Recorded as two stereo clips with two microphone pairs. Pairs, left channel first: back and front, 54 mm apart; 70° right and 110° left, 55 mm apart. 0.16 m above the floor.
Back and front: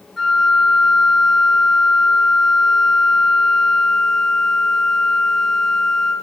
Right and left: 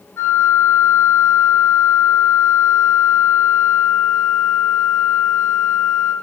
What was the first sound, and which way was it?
A flute, 95° right.